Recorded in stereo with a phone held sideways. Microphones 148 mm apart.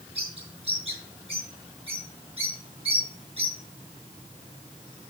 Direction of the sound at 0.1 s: 40° right (ahead or behind).